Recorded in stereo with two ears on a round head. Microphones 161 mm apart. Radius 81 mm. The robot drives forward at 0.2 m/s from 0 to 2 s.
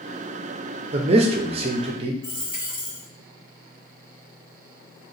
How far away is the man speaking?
About 0.5 m.